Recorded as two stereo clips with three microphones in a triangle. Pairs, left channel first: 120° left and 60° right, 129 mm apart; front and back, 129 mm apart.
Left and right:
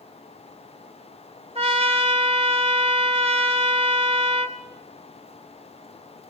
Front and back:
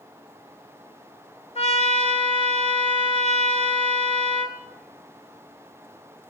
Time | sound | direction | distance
1.6 | a trumpet | 25° right | 2.5 m